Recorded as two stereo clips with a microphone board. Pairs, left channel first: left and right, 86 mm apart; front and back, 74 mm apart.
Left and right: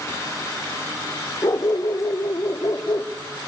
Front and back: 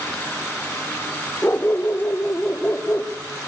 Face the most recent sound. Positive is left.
turn(degrees=55)